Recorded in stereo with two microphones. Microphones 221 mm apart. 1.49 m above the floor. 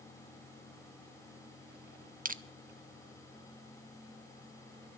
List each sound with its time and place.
2.2 s crushing: 35° right (ahead or behind), 0.5 m